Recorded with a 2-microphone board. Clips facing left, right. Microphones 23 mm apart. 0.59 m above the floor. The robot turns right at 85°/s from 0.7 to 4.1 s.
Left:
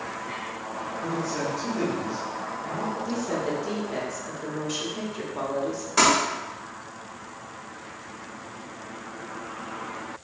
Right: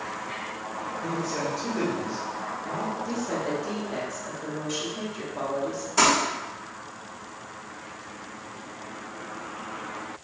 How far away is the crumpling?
About 1.9 m.